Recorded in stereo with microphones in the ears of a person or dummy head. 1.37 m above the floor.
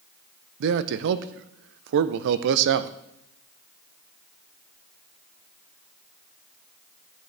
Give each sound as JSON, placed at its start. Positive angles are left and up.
{"t": 0.6, "sound": "a man speaking", "side_deg": -65, "distance_m": 0.5}